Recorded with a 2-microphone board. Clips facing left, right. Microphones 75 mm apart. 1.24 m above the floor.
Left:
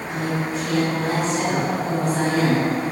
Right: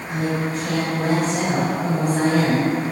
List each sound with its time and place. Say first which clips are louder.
0.1 s a woman speaking: right 2 dB; 60° right (ahead or behind), 6 m